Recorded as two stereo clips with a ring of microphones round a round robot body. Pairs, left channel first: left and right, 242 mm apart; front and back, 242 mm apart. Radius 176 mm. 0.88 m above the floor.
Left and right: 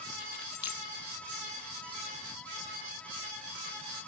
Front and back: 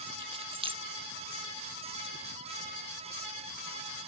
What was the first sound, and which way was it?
Keys jangling, 110° left.